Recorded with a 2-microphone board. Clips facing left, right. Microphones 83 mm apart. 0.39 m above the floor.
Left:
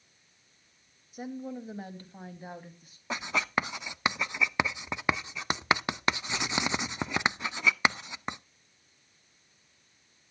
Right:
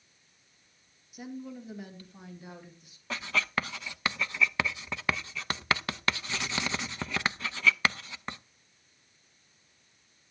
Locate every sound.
1.1 s a woman speaking: 35° left (ahead or behind), 2.0 m; by 3.0 s 40° left (ahead or behind), 3 m
3.1 s writing: 20° left (ahead or behind), 0.5 m